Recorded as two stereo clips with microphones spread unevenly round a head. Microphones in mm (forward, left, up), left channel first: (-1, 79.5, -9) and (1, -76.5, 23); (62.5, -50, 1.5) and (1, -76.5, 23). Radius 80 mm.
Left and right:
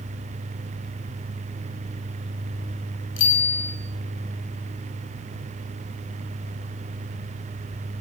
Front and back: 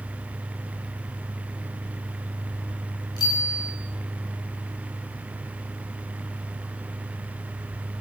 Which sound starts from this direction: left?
A bicycle bell, at 3.2 s.